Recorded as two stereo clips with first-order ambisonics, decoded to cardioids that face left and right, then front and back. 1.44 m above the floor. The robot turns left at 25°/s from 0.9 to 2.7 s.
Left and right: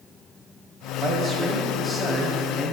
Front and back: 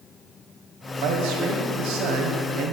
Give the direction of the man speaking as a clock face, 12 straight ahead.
5 o'clock.